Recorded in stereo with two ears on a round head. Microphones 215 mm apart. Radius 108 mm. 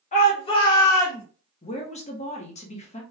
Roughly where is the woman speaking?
Left.